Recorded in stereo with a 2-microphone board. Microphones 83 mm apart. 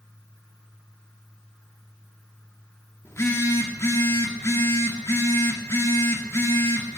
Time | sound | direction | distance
3.0 | a phone buzzing | 35° left (ahead or behind) | 1.5 m